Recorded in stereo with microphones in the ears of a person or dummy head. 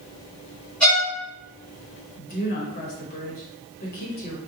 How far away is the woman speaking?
About 0.7 m.